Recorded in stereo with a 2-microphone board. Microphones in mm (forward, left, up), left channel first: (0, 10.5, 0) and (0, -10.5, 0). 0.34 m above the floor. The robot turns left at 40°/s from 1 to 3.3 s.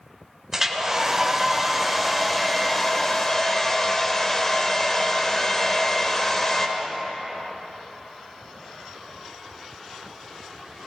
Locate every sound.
0.5 s a hair dryer: 20° right (ahead or behind), 1.5 m; by 6.7 s 20° left (ahead or behind), 1.5 m